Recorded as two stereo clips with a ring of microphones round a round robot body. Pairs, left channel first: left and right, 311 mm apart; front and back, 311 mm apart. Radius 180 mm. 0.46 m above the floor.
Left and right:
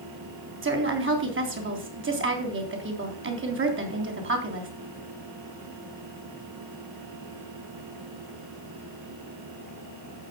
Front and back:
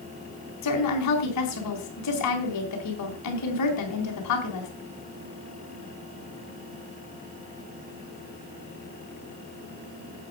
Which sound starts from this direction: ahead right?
A woman speaking, at 0.6 s.